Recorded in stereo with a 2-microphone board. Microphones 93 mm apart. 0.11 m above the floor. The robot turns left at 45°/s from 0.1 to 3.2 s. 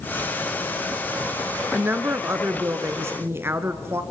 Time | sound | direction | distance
1.7 | a woman speaking | 20° right (ahead or behind) | 1.1 m